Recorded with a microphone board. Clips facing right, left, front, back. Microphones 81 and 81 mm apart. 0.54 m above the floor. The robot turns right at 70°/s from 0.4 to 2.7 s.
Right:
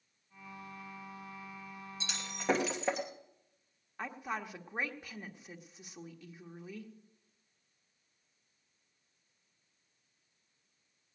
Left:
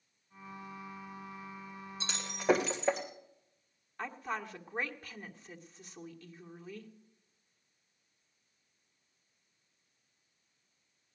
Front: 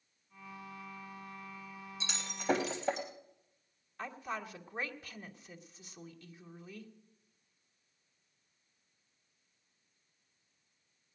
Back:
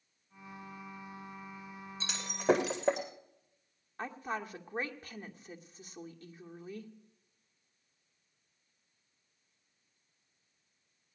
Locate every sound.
2.0 s breaking glass: 135° left, 2.5 m; by 3.1 s 175° right, 2.5 m
4.0 s a woman speaking: 165° right, 1.5 m